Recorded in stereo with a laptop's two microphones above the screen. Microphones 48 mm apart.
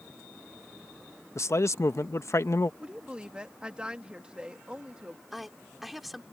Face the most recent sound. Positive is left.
turn(degrees=-5)  # may be behind; listen again after turning